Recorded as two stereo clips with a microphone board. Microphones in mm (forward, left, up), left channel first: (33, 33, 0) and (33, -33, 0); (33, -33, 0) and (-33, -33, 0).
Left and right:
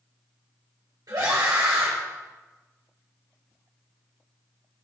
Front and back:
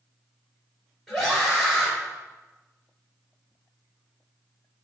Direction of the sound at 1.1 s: 80° right.